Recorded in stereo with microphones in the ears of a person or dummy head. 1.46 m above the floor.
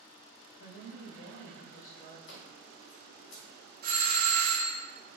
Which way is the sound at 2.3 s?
70° left (ahead or behind).